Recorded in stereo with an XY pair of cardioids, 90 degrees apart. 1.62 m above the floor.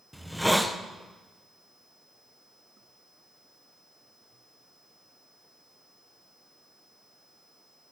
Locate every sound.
0.1 s a hiss: 5° left, 1.2 m